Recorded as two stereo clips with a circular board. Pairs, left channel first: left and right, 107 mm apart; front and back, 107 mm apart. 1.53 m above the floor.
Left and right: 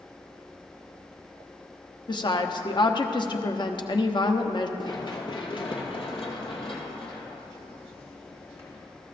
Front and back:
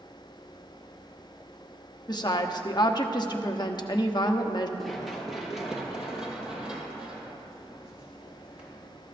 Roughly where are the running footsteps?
Left.